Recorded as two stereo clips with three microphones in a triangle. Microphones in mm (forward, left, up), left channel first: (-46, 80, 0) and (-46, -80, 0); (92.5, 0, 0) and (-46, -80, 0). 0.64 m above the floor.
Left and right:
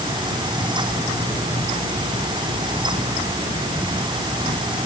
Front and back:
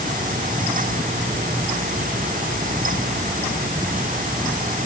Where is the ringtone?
I don't hear a ringtone.